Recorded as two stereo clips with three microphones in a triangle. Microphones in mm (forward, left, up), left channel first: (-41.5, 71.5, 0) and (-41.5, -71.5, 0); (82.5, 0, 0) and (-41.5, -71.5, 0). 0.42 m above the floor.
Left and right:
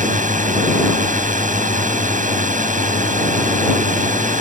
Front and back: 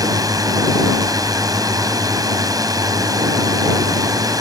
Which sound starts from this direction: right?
A drone, at 0.0 s.